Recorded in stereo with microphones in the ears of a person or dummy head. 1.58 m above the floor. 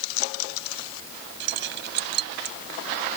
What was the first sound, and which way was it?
Keys jangling, 80° right.